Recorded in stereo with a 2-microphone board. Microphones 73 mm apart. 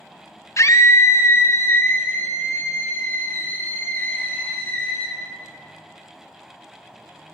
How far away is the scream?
About 0.8 m.